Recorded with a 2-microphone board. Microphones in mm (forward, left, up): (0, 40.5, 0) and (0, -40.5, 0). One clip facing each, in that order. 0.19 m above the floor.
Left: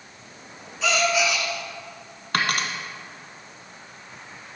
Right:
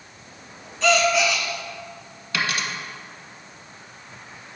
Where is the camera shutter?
No camera shutter in this recording.